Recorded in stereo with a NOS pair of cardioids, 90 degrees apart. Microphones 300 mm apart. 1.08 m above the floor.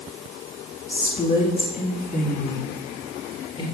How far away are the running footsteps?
I don't hear running footsteps.